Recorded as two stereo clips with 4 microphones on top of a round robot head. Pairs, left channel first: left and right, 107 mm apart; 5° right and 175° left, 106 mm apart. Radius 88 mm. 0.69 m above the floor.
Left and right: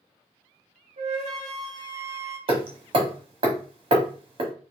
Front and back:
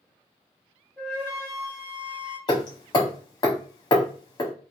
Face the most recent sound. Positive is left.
turn(degrees=-60)